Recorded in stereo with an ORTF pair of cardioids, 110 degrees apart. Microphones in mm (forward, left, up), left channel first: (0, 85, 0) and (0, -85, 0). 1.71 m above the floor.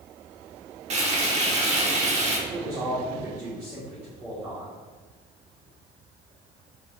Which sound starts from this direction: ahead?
A man speaking, at 2.5 s.